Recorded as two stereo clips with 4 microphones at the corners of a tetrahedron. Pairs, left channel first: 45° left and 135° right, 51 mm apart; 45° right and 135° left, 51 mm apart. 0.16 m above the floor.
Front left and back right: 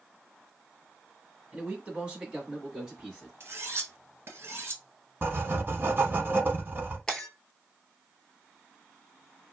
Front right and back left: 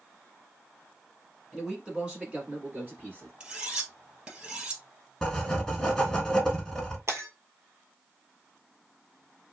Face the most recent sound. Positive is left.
turn(degrees=120)